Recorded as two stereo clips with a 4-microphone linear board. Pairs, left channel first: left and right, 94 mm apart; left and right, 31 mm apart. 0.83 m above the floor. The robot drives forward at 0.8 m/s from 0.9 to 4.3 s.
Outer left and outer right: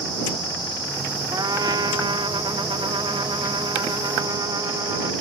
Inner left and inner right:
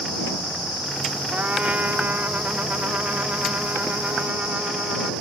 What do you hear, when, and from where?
1.3 s a trumpet: 50° right (ahead or behind)